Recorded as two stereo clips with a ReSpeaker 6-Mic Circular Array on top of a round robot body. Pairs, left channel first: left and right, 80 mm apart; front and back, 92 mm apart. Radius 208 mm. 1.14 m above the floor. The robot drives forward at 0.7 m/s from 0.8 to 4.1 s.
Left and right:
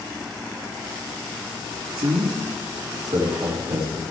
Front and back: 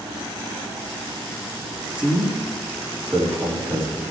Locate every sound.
2.0 s a man speaking: 100° right, 2.5 m; by 4.1 s 130° right, 3.5 m